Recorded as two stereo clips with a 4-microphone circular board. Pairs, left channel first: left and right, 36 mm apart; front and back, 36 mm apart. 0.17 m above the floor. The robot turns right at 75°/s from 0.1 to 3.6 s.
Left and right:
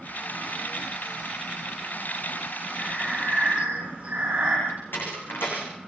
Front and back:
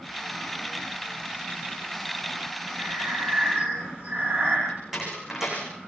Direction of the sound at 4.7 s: 100° left.